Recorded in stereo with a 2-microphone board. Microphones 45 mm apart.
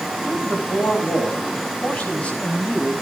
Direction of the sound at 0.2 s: 35° left (ahead or behind).